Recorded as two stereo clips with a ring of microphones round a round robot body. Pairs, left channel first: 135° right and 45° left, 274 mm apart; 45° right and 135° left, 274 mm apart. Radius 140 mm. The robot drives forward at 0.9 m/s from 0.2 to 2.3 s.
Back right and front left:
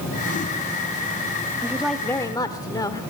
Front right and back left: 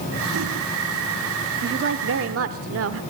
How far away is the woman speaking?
About 0.9 m.